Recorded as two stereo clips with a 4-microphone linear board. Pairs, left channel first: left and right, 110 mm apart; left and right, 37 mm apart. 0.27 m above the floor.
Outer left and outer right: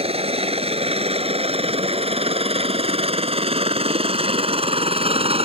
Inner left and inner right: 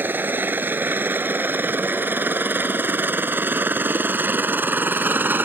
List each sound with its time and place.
0.0 s a helicopter: 65° right (ahead or behind); by 5.5 s 60° right (ahead or behind)